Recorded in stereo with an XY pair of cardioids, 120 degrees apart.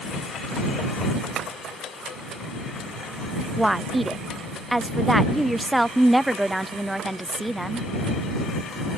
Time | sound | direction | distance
1.4 | tapping | 60° right | ?
3.6 | a woman speaking | 5° right | ?